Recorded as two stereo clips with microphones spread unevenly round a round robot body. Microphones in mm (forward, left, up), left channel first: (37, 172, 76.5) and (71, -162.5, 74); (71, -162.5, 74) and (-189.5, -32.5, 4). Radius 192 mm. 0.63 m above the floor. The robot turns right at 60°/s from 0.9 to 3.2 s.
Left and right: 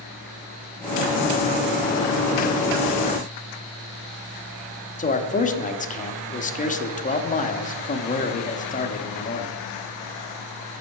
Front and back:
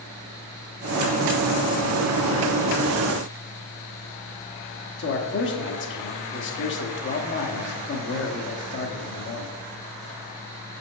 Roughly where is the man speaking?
Ahead left.